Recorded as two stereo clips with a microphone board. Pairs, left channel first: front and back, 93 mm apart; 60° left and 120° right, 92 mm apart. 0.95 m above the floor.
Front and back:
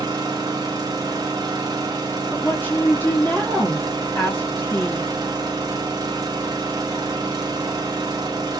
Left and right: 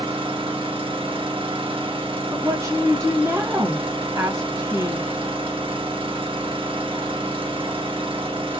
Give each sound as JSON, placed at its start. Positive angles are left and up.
{"t": 0.0, "sound": "an engine running", "azimuth_deg": -135, "distance_m": 1.1}
{"t": 2.3, "sound": "a woman speaking", "azimuth_deg": -70, "distance_m": 1.5}